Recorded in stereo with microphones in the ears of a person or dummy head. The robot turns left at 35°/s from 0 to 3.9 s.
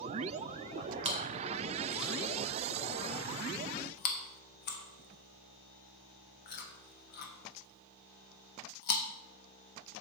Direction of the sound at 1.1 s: 35° right (ahead or behind).